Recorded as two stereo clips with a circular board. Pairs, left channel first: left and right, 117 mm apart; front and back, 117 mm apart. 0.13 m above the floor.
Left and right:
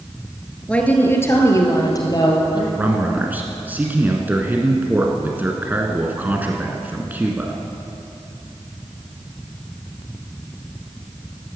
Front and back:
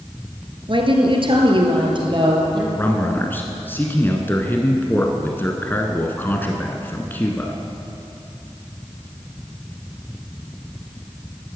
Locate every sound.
0.7 s a woman speaking: 165° left, 2 m; by 2.6 s 135° left, 4 m
2.8 s a man speaking: 40° right, 1.2 m